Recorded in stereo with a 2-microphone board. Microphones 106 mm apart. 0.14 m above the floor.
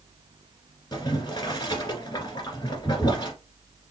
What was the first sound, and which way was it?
Boiling, 40° left (ahead or behind).